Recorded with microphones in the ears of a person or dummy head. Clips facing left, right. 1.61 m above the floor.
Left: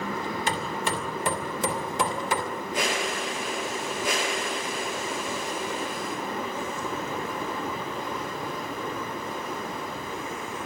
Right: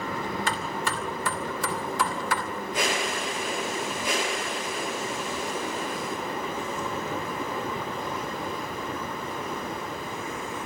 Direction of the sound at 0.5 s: 20° left (ahead or behind).